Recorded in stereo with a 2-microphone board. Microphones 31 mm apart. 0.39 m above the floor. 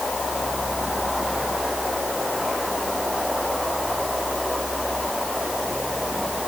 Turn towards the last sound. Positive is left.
No sound to turn to.